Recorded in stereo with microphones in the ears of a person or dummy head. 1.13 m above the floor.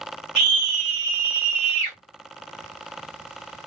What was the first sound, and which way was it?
A scream, 55° right (ahead or behind).